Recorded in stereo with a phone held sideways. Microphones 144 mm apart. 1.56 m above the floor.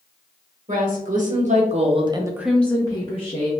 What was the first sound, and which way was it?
A woman speaking, 65° right (ahead or behind).